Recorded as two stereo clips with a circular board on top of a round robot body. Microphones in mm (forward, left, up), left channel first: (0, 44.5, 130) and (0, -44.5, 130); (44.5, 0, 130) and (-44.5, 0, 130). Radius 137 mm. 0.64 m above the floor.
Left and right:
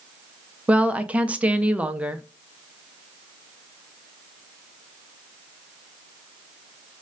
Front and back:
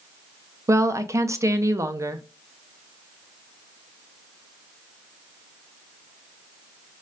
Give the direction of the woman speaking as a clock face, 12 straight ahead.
5 o'clock.